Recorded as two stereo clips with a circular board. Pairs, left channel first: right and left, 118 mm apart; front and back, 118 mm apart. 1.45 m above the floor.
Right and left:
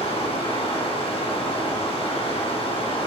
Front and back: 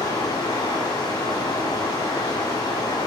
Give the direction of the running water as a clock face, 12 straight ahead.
2 o'clock.